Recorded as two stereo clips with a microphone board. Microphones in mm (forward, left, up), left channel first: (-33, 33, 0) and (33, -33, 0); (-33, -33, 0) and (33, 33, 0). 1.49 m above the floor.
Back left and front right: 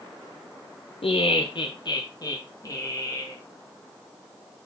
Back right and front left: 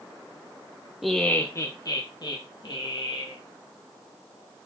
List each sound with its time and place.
1.0 s laughter: 130° left, 0.7 m; by 3.4 s 170° right, 3 m